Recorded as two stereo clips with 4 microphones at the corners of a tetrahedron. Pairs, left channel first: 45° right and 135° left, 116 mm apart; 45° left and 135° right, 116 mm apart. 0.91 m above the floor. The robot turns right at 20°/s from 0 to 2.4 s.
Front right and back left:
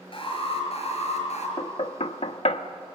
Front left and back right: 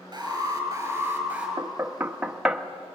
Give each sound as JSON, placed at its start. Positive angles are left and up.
{"t": 0.1, "sound": "an alarm", "azimuth_deg": -80, "distance_m": 6.5}
{"t": 1.6, "sound": "knocking", "azimuth_deg": -70, "distance_m": 1.1}